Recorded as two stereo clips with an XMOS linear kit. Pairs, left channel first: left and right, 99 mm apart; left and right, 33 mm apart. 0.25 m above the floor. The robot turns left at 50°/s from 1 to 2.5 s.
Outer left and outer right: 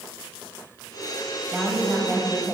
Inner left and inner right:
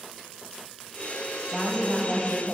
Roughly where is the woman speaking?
Centre.